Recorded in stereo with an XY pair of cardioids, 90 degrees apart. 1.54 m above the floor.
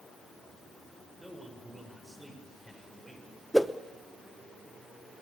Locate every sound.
1.2 s a man speaking: 5° right, 7 m
3.5 s a whoosh: 5° right, 1.0 m